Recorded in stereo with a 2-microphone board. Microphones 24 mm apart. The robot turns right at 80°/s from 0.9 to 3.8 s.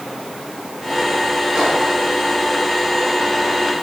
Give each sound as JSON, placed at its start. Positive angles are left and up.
{"t": 1.6, "sound": "a microwave", "side_deg": -40, "distance_m": 5.0}